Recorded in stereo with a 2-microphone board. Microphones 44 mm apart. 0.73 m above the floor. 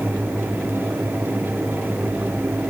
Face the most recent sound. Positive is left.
No sound to turn to.